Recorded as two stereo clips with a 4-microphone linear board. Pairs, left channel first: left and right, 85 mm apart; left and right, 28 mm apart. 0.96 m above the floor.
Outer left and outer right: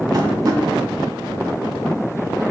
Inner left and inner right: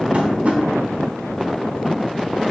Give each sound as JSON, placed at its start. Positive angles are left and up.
{"t": 0.1, "sound": "tapping", "side_deg": -45, "distance_m": 0.8}